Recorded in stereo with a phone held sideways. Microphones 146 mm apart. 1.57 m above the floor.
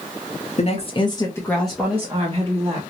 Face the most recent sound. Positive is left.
turn(degrees=-35)  # may be behind; listen again after turning